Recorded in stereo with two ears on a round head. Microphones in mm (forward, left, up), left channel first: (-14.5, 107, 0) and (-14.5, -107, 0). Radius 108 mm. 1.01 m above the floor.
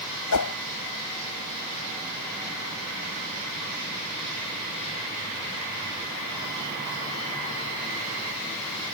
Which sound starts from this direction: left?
A whoosh, at 0.3 s.